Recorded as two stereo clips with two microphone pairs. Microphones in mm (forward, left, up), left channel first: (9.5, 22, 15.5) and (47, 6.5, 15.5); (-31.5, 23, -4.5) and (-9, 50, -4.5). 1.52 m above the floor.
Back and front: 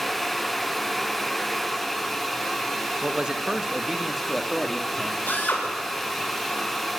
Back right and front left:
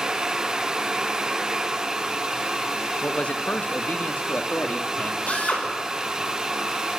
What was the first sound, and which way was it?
A man speaking, 80° right.